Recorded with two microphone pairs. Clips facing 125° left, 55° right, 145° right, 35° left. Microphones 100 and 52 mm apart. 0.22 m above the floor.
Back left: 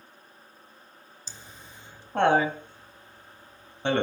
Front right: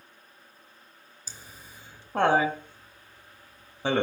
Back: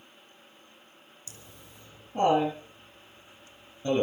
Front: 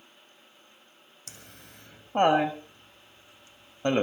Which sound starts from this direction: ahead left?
Laughter, at 1.3 s.